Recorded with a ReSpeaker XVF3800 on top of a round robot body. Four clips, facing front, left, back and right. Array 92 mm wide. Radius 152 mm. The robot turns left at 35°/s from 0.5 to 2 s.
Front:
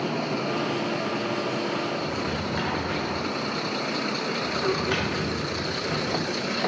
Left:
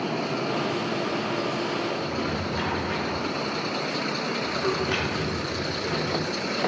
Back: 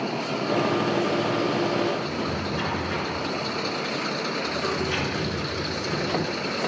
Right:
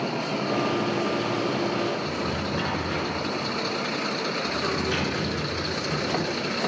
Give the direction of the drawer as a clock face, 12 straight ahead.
11 o'clock.